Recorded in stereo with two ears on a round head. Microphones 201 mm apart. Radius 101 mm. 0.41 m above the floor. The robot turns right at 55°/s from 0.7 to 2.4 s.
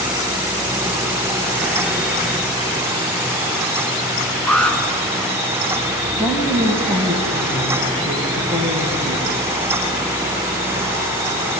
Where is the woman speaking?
5° left (ahead or behind), 3.5 m.